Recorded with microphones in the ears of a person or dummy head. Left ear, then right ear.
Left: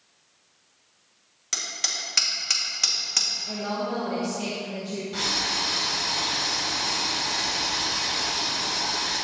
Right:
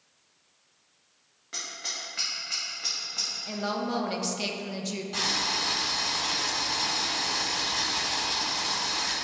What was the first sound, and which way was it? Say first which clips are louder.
Hammering: left 7 dB; 75° left (ahead or behind).